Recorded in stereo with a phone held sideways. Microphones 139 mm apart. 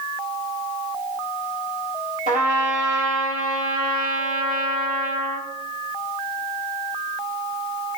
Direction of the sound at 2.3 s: 75° right (ahead or behind).